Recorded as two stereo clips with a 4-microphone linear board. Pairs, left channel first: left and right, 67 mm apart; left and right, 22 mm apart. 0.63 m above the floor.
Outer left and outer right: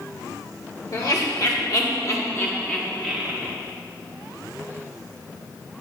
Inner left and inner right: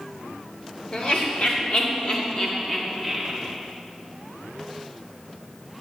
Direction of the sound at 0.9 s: 60° left (ahead or behind).